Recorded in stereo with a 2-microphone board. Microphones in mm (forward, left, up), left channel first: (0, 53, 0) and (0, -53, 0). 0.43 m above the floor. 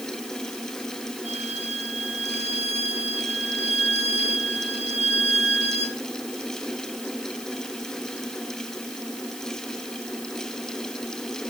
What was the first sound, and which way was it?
A violin, 80° left.